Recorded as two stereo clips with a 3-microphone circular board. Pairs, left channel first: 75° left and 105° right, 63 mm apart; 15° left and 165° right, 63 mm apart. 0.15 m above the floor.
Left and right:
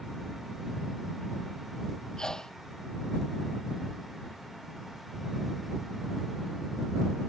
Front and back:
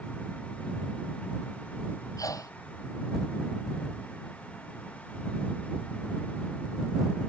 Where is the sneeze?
5° right.